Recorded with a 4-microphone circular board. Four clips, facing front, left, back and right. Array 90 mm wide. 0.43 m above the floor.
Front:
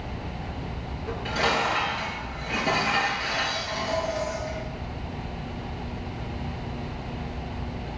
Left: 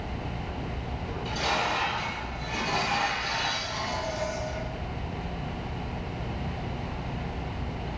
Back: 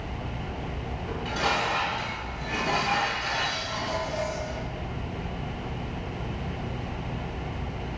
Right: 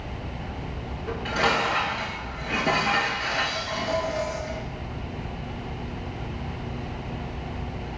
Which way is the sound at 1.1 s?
75° right.